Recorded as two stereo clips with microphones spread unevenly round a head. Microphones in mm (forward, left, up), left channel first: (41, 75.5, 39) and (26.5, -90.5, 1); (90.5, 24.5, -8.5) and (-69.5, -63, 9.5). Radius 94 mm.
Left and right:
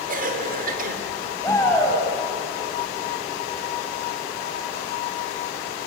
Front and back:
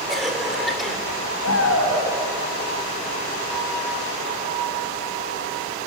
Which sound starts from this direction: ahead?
A shout, at 1.4 s.